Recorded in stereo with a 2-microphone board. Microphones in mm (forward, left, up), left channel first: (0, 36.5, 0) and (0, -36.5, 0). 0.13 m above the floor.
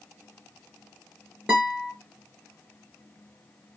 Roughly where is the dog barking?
I don't hear a dog barking.